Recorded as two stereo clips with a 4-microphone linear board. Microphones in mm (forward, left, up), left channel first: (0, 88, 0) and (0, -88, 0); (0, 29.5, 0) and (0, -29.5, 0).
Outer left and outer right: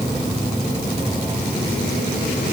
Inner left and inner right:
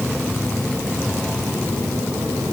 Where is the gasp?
I don't hear a gasp.